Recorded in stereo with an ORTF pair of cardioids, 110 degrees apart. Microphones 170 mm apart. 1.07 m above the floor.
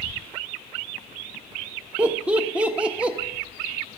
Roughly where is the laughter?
Ahead.